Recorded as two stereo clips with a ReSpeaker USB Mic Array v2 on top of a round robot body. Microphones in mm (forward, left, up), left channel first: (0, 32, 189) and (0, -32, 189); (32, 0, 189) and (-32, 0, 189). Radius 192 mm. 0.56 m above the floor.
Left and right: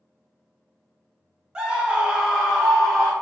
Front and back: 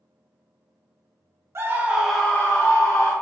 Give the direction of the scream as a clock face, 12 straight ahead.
5 o'clock.